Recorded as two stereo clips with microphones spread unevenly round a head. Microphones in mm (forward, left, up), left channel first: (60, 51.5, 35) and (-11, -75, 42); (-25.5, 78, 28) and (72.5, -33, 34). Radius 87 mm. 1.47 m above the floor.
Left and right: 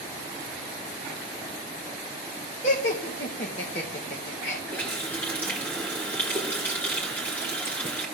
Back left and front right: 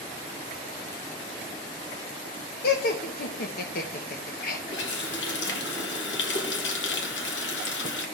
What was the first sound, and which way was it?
Laughter, 110° left.